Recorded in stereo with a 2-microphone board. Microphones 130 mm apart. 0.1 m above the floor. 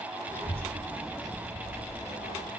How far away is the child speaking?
About 1.3 m.